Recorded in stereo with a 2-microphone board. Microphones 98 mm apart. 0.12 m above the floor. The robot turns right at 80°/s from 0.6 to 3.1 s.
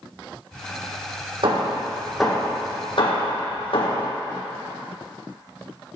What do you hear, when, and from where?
1.4 s hammering: 60° right (ahead or behind), 2.5 m; by 4.1 s 65° left (ahead or behind), 2.5 m